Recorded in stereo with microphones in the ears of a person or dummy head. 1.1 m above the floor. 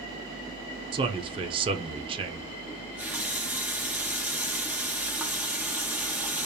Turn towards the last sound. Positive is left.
turn(degrees=-10)  # may be behind; listen again after turning